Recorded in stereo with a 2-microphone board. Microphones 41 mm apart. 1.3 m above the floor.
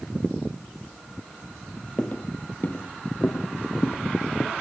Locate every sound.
2.0 s footsteps: 30° left (ahead or behind), 1.7 m; by 4.5 s 70° left (ahead or behind), 3.5 m